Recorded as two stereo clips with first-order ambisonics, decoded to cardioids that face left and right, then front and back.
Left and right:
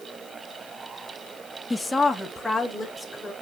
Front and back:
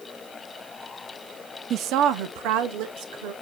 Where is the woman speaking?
165° left, 0.8 m; by 3.3 s straight behind, 2.5 m.